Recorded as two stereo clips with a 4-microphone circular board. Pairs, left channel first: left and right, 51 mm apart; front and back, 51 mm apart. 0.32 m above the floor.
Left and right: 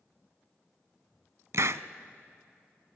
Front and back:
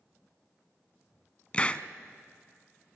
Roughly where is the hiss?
Ahead right.